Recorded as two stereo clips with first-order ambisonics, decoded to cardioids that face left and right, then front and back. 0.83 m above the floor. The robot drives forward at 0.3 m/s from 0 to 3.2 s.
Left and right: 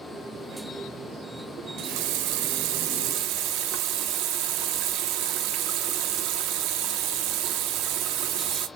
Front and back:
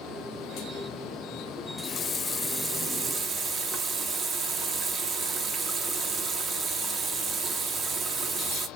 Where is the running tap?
55° right, 0.5 m; by 8.7 s 115° right, 0.5 m.